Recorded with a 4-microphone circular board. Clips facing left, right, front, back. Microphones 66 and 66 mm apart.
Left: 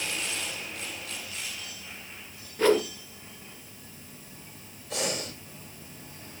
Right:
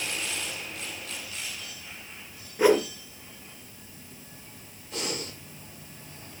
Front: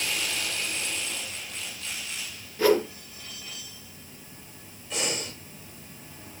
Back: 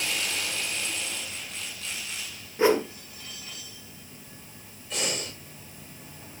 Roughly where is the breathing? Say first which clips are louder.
Left 2 dB, front 1 dB; left.